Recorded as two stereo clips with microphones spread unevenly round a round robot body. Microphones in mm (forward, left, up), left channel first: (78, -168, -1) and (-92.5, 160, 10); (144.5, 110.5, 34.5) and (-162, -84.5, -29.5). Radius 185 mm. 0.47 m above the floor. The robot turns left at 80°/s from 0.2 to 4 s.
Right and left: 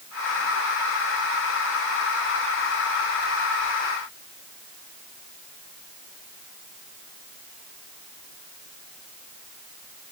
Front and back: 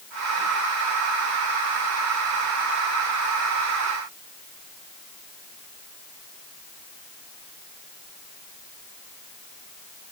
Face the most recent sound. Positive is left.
No sound to turn to.